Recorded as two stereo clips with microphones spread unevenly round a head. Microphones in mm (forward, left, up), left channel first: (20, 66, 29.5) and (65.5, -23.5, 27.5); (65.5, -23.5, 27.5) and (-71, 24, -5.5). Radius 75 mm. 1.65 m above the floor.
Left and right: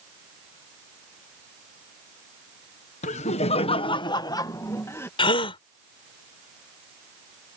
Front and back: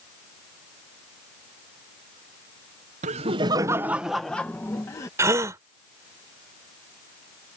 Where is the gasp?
85° left.